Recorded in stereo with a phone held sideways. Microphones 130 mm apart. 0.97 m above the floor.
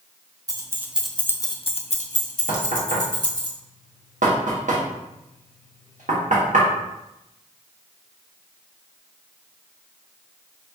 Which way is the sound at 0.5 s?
25° right (ahead or behind).